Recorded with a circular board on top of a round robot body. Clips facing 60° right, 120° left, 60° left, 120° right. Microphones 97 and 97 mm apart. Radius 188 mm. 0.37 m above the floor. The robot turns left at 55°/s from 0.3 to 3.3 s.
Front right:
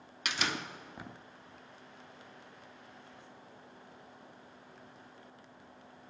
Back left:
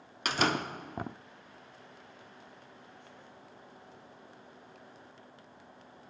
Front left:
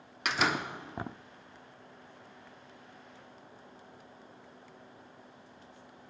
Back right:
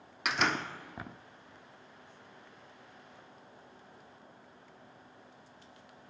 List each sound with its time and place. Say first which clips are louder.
0.2 s a door slam: back left 7 dB, front left 1 dB; 150° left, 1.0 m; by 1.1 s 105° left, 1.0 m